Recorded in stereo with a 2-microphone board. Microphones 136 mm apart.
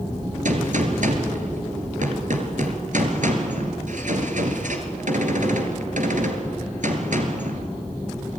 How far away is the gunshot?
About 3 m.